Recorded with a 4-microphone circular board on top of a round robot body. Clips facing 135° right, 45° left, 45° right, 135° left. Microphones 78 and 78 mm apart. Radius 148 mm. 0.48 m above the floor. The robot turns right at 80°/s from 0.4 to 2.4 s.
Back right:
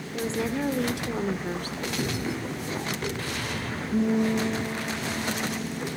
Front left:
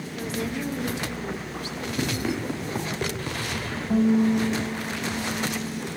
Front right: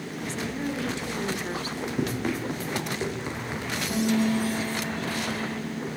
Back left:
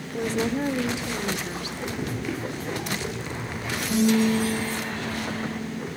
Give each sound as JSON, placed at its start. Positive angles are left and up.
{"t": 0.1, "sound": "a woman speaking", "azimuth_deg": 165, "distance_m": 2.0}
{"t": 2.0, "sound": "running footsteps", "azimuth_deg": -20, "distance_m": 9.0}
{"t": 3.9, "sound": "a guitar", "azimuth_deg": 45, "distance_m": 6.0}